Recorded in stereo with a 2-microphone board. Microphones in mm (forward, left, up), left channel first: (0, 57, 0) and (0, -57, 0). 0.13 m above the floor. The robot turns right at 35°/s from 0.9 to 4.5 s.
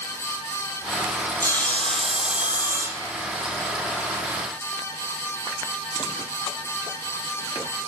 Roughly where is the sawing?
Behind.